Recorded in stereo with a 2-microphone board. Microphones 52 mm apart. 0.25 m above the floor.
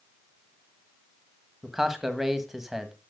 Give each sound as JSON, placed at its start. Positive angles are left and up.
{"t": 1.6, "sound": "a man speaking", "side_deg": -5, "distance_m": 1.5}